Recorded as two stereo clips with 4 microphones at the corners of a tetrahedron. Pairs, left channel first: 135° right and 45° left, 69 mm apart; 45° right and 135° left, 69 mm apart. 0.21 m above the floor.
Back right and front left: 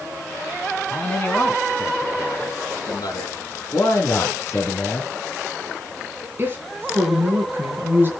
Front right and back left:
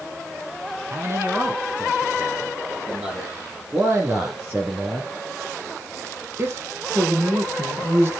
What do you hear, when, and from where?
0.9 s a man speaking: 160° left, 2 m; by 3.4 s 150° right, 4 m
3.7 s a man speaking: 175° right, 2 m
6.4 s a woman speaking: 95° left, 2.5 m